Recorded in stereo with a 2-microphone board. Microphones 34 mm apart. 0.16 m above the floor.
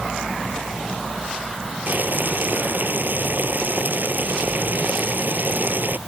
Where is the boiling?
70° right (ahead or behind).